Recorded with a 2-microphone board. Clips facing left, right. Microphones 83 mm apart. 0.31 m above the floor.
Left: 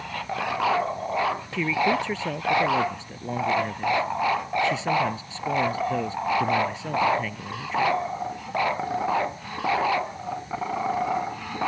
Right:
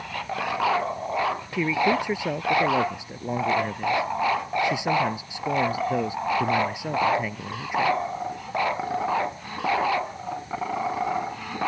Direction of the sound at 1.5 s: 10° right (ahead or behind).